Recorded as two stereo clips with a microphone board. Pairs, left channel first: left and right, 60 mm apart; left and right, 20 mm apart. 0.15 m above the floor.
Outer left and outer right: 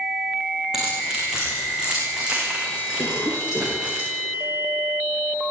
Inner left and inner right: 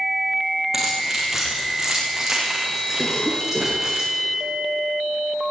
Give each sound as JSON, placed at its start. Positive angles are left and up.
{"t": 0.7, "sound": "keys jangling", "side_deg": -10, "distance_m": 9.0}
{"t": 3.0, "sound": "a cough", "side_deg": 55, "distance_m": 4.0}